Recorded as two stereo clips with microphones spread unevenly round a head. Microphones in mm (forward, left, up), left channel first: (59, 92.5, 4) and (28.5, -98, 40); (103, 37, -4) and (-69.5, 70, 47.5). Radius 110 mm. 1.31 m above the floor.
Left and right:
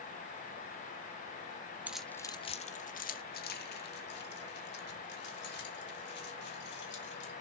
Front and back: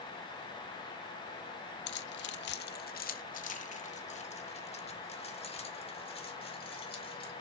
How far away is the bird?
I don't hear a bird.